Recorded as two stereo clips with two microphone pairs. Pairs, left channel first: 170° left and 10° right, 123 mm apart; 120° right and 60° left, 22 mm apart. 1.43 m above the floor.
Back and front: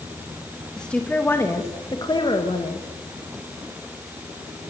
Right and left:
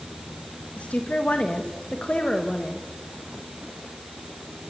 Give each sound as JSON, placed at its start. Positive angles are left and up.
{"t": 0.8, "sound": "a woman speaking", "azimuth_deg": -110, "distance_m": 2.0}